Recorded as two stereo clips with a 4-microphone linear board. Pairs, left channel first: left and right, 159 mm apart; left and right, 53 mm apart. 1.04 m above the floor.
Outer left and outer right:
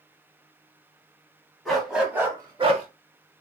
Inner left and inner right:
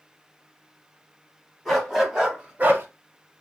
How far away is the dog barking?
About 1.9 m.